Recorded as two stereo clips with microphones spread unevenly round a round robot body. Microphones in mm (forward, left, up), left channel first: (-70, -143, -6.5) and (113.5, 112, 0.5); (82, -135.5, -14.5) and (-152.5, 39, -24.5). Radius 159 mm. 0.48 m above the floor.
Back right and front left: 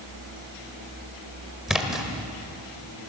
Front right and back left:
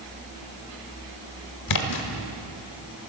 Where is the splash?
35° right, 1.5 m.